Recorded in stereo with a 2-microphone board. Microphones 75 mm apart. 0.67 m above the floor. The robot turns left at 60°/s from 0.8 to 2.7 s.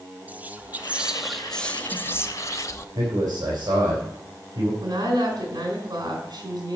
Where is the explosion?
No explosion in this recording.